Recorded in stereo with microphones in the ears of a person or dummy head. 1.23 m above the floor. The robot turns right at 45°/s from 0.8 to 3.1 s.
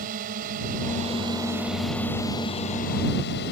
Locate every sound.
0.0 s a drone: 50° right; by 3.5 s 55° left